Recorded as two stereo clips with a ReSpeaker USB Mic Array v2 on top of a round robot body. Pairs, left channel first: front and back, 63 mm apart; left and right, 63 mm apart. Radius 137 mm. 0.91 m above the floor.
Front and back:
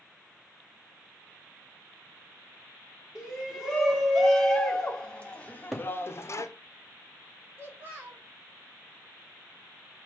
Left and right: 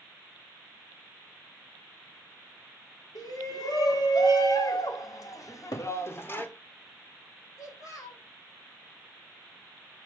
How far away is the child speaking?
About 3.5 m.